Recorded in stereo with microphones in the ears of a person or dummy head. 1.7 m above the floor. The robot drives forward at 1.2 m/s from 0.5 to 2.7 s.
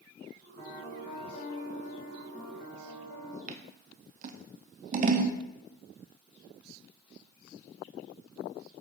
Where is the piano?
35° left (ahead or behind), 2.5 m; by 3.4 s 40° left (ahead or behind), 2 m.